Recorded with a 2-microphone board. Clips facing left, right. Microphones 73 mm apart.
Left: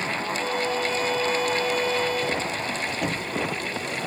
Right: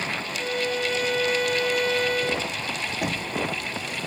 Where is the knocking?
10° right (ahead or behind), 1.0 m.